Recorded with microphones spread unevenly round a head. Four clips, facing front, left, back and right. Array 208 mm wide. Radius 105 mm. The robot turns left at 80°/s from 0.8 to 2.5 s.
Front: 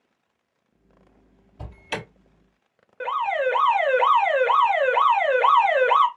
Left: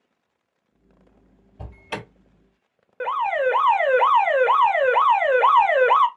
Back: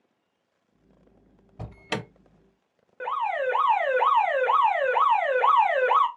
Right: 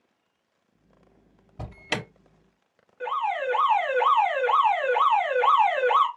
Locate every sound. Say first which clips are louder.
1.6 s an alarm: right 1 dB, even; 95° right, 1.5 m; by 2.0 s 130° right, 1.5 m
3.0 s an alarm: left 5 dB, front 3 dB; 95° left, 0.8 m